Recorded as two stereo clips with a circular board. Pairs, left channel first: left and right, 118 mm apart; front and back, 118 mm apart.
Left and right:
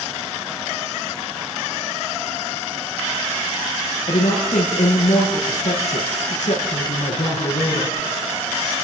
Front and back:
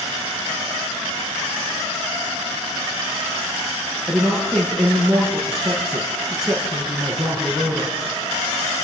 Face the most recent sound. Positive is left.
turn(degrees=95)